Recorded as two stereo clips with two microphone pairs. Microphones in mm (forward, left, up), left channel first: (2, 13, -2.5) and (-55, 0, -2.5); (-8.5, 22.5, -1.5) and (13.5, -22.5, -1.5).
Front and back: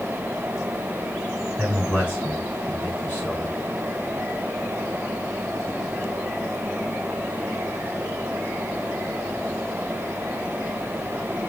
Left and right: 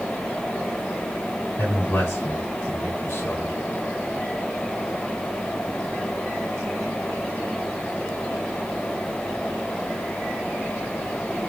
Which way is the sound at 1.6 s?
75° left.